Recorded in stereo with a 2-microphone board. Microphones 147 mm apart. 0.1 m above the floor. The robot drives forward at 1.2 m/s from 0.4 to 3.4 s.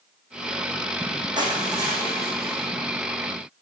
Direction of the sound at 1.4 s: 30° right (ahead or behind).